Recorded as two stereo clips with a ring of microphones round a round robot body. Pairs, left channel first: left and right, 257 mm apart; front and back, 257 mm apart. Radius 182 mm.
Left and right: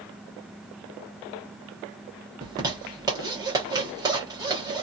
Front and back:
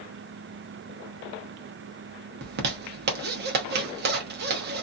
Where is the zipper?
160° right, 0.8 m.